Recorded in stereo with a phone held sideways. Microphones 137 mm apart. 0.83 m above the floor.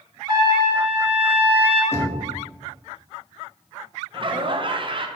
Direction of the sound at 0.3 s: 30° right (ahead or behind).